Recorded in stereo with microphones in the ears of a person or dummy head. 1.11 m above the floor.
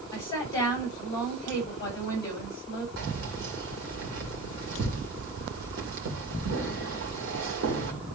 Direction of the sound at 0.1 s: 20° left (ahead or behind).